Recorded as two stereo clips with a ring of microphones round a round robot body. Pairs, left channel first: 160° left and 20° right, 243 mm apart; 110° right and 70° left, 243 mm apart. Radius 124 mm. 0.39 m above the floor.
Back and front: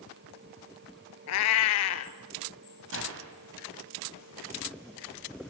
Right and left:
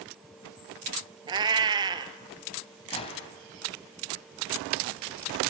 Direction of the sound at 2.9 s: 50° right.